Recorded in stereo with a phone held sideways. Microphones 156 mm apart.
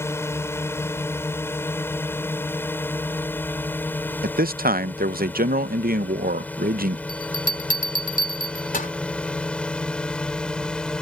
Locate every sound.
0.0 s a drone: 15° left (ahead or behind); by 11.0 s 5° left (ahead or behind)
4.2 s a man speaking: 70° right (ahead or behind)
7.1 s a bell: 60° left (ahead or behind)